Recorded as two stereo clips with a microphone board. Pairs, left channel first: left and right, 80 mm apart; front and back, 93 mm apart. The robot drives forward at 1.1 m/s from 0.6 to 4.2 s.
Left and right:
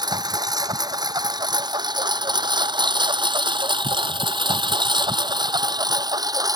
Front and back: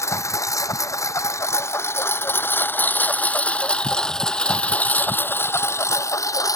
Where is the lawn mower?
60° right; by 6.6 s 50° right.